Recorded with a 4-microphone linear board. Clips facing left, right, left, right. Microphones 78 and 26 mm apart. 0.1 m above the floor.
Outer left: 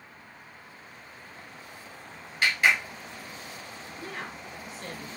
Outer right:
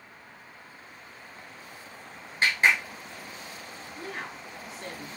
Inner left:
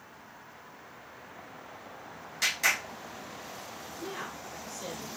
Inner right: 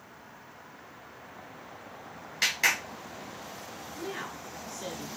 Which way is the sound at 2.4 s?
30° right (ahead or behind).